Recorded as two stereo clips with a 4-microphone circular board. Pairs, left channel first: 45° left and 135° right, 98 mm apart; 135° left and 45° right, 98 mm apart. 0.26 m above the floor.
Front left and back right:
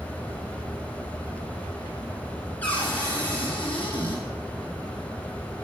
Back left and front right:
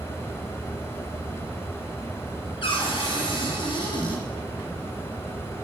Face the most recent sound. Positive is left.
turn(degrees=120)